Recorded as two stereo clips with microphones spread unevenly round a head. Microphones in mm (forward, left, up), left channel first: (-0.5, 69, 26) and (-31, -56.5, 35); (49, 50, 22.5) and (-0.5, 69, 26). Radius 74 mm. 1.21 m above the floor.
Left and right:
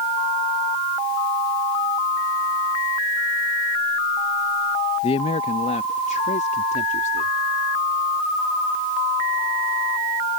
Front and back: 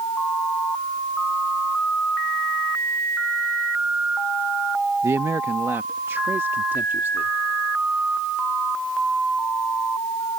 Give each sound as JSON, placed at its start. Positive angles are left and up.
{"t": 5.0, "sound": "a man speaking", "azimuth_deg": 125}